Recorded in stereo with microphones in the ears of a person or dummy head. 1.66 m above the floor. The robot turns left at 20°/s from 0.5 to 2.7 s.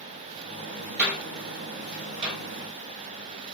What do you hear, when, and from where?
1.0 s a door slam: 5° right (ahead or behind), 5.5 m; by 2.3 s 35° right (ahead or behind), 5.5 m